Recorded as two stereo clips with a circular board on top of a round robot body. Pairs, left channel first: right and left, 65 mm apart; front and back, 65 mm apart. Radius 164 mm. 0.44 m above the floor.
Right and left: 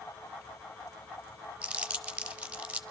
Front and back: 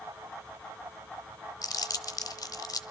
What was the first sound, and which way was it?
Crumpling, 15° left.